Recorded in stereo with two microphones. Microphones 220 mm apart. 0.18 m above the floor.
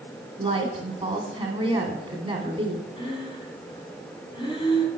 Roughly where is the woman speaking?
Right.